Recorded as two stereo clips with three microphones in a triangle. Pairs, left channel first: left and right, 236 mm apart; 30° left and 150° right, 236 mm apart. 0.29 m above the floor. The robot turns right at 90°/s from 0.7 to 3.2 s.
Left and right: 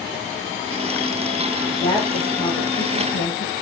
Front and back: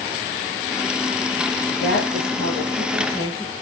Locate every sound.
1.8 s a woman speaking: 5° left, 9.5 m; by 3.5 s 135° left, 9.5 m